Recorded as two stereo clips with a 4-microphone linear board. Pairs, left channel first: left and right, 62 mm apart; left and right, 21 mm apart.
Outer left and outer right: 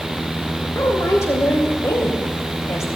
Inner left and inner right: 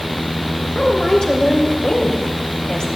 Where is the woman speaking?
55° left (ahead or behind), 3 m.